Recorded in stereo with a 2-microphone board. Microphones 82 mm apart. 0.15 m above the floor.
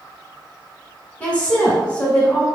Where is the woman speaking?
15° left (ahead or behind), 1.4 m.